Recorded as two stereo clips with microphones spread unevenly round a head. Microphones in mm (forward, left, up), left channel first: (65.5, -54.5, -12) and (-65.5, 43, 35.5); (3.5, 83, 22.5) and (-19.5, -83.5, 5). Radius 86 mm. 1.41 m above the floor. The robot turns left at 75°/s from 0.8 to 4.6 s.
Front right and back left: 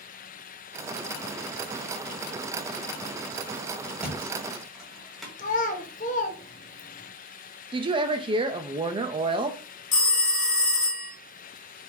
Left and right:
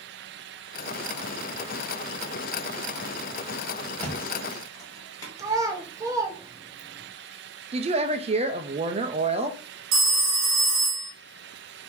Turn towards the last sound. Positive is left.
turn(degrees=-90)